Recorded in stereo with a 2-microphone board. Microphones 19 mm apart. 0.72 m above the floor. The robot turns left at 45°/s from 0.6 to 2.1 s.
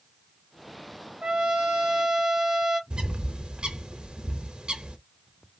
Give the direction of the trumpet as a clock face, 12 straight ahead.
3 o'clock.